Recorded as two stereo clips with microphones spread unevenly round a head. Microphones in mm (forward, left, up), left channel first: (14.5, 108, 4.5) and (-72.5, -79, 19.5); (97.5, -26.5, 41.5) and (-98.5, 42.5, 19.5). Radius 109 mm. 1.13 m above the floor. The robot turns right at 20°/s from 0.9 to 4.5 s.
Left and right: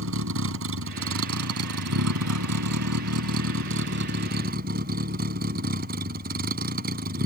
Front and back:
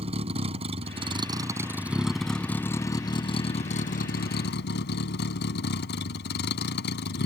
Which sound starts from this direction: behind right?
A vehicle, at 0.0 s.